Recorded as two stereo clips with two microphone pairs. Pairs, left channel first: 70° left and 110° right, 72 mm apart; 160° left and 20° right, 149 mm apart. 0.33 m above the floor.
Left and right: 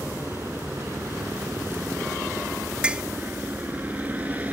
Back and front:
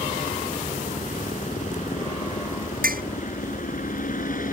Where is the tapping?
35° right.